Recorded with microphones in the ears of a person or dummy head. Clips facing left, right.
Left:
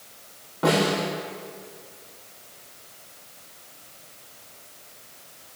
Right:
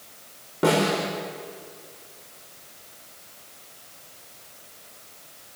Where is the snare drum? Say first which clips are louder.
Right 1 dB; 30° right (ahead or behind), 5.5 m.